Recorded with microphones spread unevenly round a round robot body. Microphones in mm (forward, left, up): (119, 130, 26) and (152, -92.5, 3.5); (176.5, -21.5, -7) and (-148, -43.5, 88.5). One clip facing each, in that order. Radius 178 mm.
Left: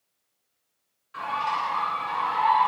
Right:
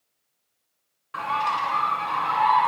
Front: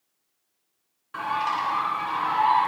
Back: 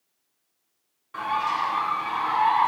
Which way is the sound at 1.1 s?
65° right.